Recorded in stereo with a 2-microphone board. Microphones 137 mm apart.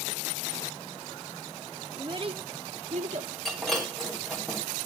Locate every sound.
2.0 s a child speaking: 35° right (ahead or behind), 0.9 m; by 3.3 s 60° right (ahead or behind), 1.1 m
3.5 s breaking glass: 5° left (ahead or behind), 3 m